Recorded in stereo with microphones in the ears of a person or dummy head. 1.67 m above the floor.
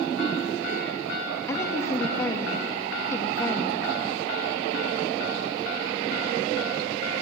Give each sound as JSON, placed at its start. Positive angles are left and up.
{"t": 1.5, "sound": "a woman speaking", "side_deg": 20, "distance_m": 2.5}